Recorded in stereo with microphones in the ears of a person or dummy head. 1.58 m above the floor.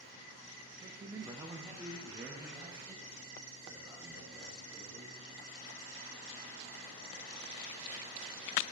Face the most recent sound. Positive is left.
turn(degrees=5)  # may be behind; listen again after turning